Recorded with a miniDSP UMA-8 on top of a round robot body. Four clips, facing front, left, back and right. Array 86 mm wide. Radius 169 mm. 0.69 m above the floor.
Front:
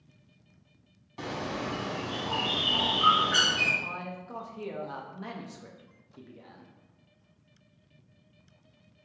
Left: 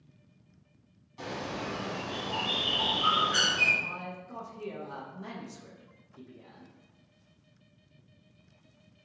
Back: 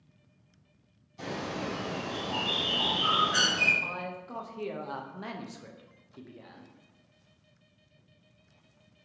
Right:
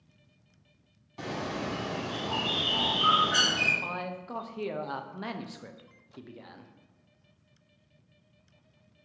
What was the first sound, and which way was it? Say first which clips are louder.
A bird: right 2 dB, front 1 dB; 30° right.